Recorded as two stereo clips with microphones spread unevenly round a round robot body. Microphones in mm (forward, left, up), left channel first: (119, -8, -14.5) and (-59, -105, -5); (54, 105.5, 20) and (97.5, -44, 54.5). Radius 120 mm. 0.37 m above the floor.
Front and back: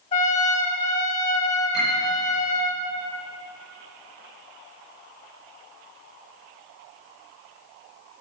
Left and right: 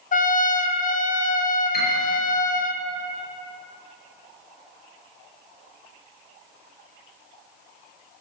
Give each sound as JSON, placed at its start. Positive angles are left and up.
{"t": 0.1, "sound": "a trumpet", "azimuth_deg": 90, "distance_m": 0.9}
{"t": 1.7, "sound": "a piano", "azimuth_deg": 105, "distance_m": 5.5}